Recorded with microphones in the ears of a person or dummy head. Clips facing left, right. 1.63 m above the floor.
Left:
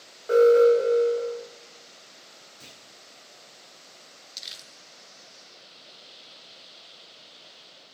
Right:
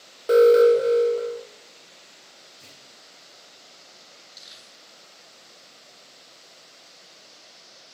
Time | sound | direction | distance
0.3 | an alarm | 50° right (ahead or behind) | 0.9 m
2.6 | a clunk | 15° left (ahead or behind) | 2.5 m
4.4 | crumpling | 40° left (ahead or behind) | 0.8 m